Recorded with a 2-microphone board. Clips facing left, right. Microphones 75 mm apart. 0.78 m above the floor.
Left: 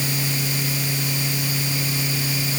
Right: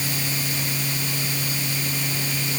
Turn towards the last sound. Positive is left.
No sound to turn to.